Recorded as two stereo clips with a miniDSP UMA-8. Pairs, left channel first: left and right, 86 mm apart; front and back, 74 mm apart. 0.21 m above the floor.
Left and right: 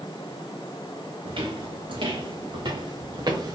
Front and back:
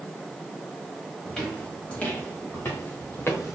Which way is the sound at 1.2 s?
80° right.